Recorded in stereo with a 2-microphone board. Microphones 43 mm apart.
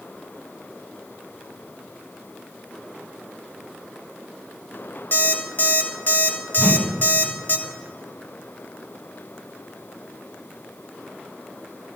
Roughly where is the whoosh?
Centre.